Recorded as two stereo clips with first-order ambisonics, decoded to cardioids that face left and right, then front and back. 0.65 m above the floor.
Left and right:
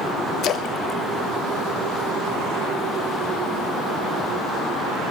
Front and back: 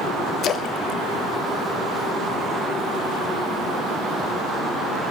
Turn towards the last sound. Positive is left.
turn(degrees=45)